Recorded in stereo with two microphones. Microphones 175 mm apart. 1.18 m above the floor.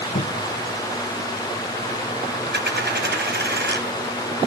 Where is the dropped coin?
75° right (ahead or behind), 4 m.